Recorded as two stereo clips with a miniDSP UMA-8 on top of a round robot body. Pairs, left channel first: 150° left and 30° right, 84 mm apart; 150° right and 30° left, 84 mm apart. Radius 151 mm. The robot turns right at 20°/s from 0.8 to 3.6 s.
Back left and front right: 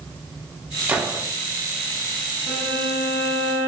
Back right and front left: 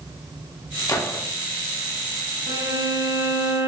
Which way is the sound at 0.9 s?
105° right.